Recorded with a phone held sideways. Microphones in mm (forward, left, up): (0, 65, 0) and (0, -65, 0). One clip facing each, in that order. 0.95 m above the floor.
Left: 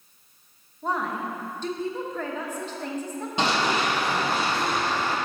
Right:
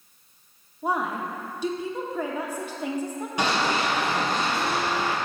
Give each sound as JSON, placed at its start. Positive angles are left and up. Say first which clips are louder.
{"t": 0.8, "sound": "a woman speaking", "louder": "right 1 dB", "side_deg": -10, "distance_m": 0.9}
{"t": 3.4, "sound": "running footsteps", "louder": "even", "side_deg": 25, "distance_m": 1.9}